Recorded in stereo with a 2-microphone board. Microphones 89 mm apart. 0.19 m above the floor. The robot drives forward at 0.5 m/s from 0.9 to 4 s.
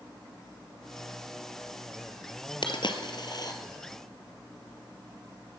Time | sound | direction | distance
2.6 | a dropped coin | 65° left (ahead or behind) | 1.2 m